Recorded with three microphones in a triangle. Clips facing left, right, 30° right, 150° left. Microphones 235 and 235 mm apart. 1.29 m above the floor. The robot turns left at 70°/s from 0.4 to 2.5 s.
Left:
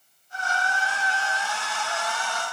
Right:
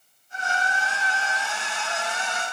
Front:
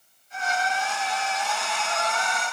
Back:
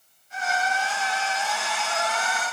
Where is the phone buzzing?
No phone buzzing in this recording.